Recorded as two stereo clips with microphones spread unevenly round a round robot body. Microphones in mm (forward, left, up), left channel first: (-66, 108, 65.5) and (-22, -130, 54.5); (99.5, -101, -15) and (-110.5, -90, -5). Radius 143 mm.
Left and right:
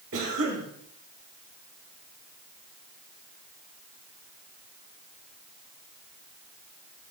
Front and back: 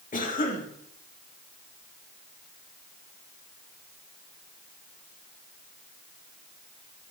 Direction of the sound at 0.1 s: 50° right.